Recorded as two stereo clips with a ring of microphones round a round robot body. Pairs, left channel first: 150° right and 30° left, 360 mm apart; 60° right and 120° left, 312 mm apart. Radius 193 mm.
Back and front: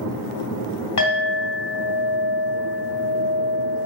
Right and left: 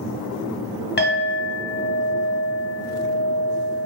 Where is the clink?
115° right, 1.2 m.